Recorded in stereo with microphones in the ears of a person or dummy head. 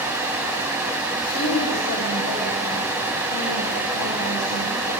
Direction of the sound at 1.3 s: 90° left.